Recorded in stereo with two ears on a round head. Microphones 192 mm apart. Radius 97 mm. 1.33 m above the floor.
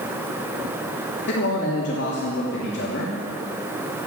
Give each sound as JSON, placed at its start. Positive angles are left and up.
{"t": 1.3, "sound": "a man speaking", "side_deg": 50, "distance_m": 3.0}